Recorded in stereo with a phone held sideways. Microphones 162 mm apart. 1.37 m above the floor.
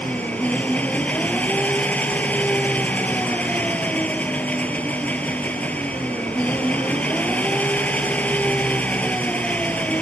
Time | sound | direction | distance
0.0 | an engine running | 10° left (ahead or behind) | ?